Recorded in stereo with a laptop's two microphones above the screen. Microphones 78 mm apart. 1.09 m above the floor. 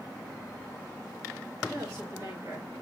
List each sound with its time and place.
1.7 s a woman speaking: 45° right (ahead or behind), 2.5 m; by 2.7 s 35° right (ahead or behind), 1.7 m